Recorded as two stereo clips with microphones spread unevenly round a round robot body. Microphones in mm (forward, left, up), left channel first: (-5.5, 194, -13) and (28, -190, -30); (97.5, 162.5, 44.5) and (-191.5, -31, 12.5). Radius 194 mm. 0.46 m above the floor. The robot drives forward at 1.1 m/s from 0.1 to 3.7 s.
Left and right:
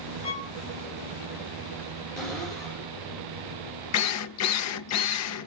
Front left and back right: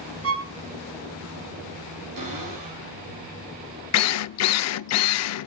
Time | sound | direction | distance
0.2 | a violin | 170° left | 2.5 m
2.2 | a cupboard door | 175° right | 8 m
3.9 | a drill | 60° left | 0.5 m